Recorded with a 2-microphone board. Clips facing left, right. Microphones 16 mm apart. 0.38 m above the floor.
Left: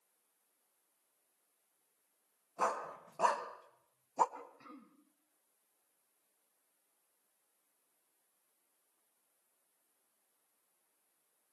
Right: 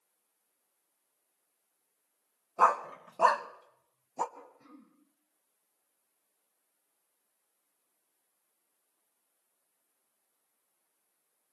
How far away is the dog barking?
About 1.4 m.